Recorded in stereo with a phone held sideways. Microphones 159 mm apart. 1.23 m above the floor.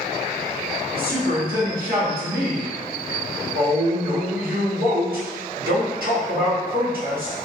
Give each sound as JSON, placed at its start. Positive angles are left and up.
{"t": 0.9, "sound": "a woman speaking", "side_deg": -65, "distance_m": 1.6}